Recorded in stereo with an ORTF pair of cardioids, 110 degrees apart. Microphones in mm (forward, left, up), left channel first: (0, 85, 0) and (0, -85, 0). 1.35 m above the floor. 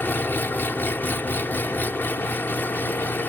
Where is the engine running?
10° left.